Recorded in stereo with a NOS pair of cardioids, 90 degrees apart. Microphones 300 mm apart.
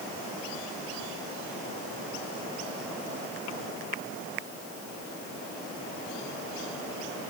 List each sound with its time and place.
Only background noise.